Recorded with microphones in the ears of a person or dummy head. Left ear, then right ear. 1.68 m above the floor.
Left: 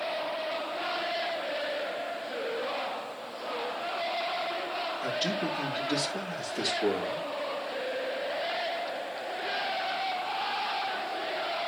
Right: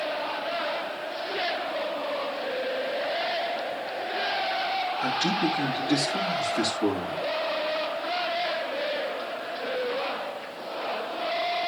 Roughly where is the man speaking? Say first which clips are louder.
Right 5 dB; right.